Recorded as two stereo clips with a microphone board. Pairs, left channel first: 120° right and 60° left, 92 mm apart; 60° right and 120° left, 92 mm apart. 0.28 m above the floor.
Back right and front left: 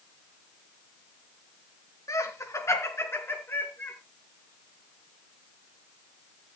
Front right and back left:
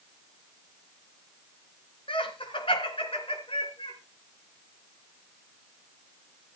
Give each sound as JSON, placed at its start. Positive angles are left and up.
{"t": 2.1, "sound": "laughter", "azimuth_deg": -70, "distance_m": 4.5}